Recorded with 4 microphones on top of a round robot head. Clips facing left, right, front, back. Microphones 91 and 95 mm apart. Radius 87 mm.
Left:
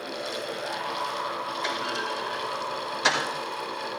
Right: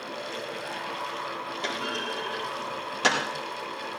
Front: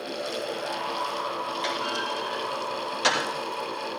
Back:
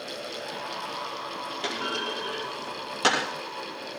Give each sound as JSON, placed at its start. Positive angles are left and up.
{"t": 1.6, "sound": "a clunk", "azimuth_deg": -125, "distance_m": 5.5}